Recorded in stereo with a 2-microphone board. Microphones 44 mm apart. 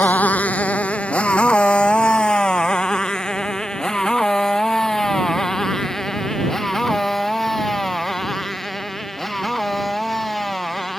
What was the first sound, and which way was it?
A motorcycle, 40° left (ahead or behind).